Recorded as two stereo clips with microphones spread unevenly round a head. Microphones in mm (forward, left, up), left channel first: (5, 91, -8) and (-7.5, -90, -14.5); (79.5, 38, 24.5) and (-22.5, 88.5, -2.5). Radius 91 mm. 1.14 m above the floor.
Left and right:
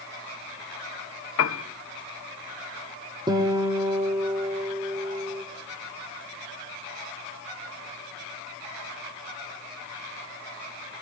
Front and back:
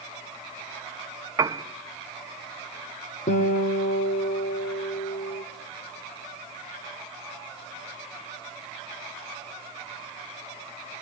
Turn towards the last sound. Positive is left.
turn(degrees=-25)